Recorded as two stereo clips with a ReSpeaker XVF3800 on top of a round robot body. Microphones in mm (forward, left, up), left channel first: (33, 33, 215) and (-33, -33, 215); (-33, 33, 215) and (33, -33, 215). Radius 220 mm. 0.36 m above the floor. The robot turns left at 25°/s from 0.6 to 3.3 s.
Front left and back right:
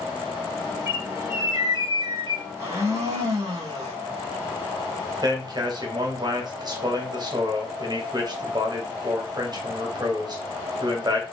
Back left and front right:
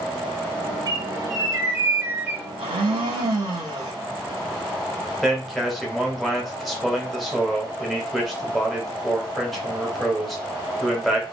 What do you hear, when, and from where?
0.9 s a bird: 75° right, 0.9 m; by 2.4 s 115° right, 0.9 m
2.6 s a blender: 70° right, 0.9 m; by 3.9 s 85° right, 0.9 m
5.2 s a man speaking: 135° right, 1.2 m